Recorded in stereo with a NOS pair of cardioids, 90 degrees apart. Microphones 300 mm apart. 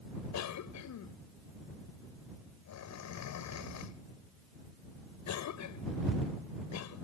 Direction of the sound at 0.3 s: 70° left.